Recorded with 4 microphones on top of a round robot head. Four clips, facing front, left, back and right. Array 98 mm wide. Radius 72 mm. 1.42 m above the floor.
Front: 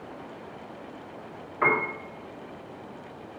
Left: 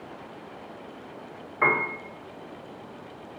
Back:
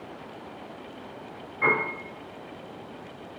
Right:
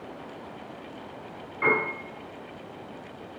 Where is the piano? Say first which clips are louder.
Left 1 dB, front 1 dB; 55° left, 1.3 m.